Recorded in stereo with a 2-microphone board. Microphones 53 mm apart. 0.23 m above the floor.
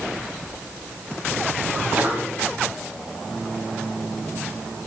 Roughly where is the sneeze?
Right.